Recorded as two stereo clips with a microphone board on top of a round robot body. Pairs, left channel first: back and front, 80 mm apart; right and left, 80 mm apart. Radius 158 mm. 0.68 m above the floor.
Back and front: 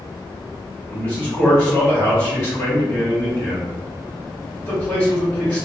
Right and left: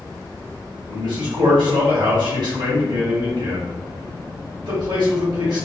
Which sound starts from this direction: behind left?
A man speaking, at 0.9 s.